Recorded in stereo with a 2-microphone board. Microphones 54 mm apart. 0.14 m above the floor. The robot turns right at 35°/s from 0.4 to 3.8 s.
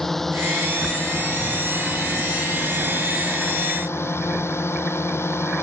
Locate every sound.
0.0 s a drone: 5° left; by 5.6 s 125° left